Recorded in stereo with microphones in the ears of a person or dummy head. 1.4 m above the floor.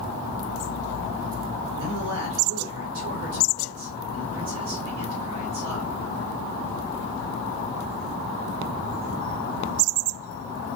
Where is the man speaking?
75° right (ahead or behind), 1.4 m.